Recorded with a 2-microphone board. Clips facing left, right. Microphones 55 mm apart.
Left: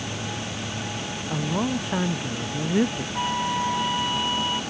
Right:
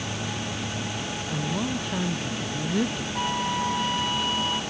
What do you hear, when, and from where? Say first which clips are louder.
1.3 s a woman speaking: left 4 dB; 25° left (ahead or behind)
3.1 s a flute: left 2 dB; 10° left (ahead or behind)